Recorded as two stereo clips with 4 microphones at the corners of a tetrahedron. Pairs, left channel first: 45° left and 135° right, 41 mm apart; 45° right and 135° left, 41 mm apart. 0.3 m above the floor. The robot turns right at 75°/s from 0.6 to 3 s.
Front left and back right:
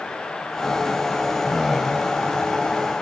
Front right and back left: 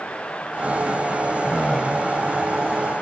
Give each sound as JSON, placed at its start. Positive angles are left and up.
{"t": 1.4, "sound": "a man speaking", "azimuth_deg": -65, "distance_m": 1.1}